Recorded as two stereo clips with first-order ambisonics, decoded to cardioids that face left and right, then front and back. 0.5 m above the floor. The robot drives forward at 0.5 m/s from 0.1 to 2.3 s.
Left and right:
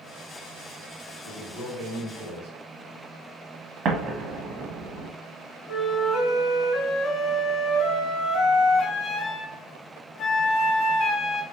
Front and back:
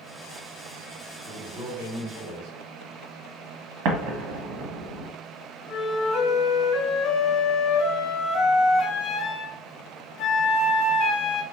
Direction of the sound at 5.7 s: 45° left.